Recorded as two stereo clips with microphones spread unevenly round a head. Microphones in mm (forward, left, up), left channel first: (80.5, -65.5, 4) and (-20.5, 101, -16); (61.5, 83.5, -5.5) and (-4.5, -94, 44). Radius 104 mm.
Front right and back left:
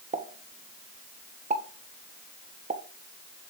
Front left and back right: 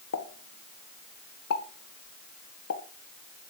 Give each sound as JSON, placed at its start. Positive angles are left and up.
{"t": 0.1, "sound": "a pop", "azimuth_deg": 65, "distance_m": 1.9}